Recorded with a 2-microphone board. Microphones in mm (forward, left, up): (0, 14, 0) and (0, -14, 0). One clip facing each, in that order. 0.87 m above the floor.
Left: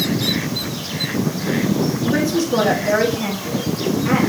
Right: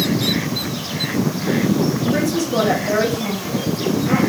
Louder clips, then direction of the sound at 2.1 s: Left 1 dB; 35° left (ahead or behind).